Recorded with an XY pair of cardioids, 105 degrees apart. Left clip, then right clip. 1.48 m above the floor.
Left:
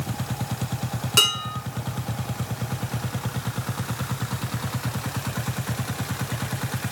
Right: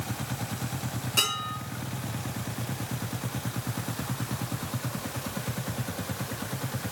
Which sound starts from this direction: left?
Dishes clattering, at 1.2 s.